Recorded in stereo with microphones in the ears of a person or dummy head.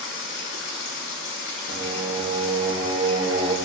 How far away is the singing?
About 1.7 m.